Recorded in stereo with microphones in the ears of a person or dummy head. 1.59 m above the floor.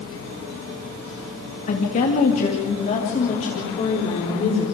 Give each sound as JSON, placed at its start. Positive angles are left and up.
{"t": 1.7, "sound": "a woman speaking", "side_deg": 40, "distance_m": 2.5}